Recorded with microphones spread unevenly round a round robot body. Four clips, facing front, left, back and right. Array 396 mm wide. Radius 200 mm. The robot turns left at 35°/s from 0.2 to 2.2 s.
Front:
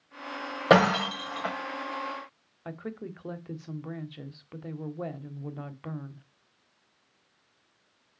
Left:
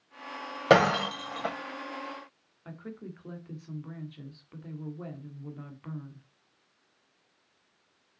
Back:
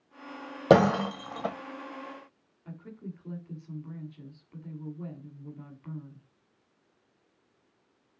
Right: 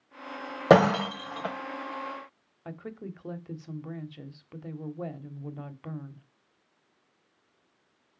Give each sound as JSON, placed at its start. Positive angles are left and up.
{"t": 0.7, "sound": "breaking glass", "azimuth_deg": -135, "distance_m": 1.1}
{"t": 2.6, "sound": "a woman speaking", "azimuth_deg": -45, "distance_m": 1.4}